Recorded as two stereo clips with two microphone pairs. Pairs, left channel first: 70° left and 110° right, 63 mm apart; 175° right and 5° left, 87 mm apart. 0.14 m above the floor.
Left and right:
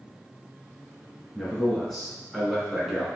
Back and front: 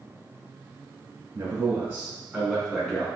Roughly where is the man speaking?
Ahead.